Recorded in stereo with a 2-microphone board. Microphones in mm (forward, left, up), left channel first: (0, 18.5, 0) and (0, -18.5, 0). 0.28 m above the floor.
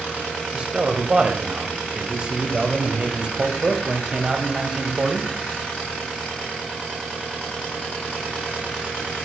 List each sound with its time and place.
0.5 s a man speaking: 25° right (ahead or behind), 1.0 m